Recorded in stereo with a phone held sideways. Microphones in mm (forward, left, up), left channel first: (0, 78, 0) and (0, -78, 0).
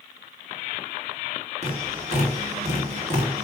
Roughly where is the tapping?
Right.